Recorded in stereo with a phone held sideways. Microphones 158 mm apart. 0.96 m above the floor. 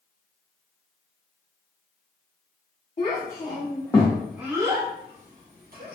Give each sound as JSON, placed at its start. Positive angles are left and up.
{"t": 3.0, "sound": "a child speaking", "side_deg": 45, "distance_m": 0.9}